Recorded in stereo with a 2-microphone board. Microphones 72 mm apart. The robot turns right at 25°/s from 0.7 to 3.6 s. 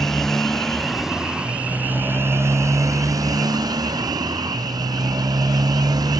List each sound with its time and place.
0.0 s a motorcycle: 175° left; by 6.2 s 115° right